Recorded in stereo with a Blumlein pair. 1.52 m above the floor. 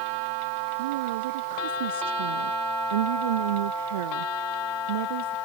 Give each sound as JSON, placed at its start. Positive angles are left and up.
{"t": 0.8, "sound": "a woman speaking", "azimuth_deg": -55}